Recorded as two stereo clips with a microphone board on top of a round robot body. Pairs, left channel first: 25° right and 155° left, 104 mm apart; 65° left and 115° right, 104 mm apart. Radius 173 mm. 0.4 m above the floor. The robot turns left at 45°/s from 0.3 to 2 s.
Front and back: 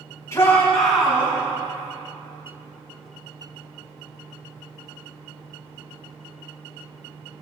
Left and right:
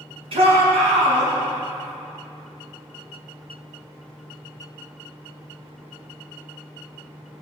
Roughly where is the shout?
Right.